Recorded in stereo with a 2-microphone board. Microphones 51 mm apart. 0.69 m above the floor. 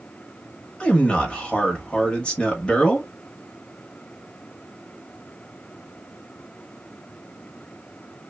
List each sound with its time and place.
0.8 s a man speaking: 20° left (ahead or behind), 1.1 m